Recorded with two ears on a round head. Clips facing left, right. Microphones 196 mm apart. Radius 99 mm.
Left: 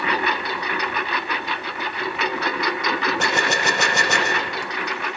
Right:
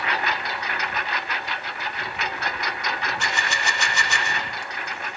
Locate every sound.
0.0 s a lawn mower: 70° left (ahead or behind); by 5.2 s 55° left (ahead or behind)
3.2 s a gunshot: 40° left (ahead or behind)